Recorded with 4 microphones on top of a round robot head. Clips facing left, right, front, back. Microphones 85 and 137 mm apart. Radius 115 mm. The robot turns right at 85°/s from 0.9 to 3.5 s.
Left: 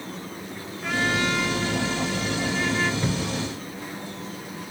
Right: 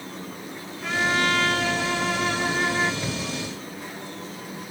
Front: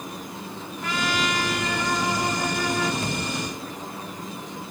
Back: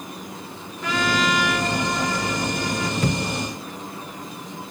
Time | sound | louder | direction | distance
0.8 | a trumpet | right 1 dB, back 4 dB | straight behind | 0.7 m
3.0 | a thud | left 3 dB, back 5 dB | 165° left | 1.0 m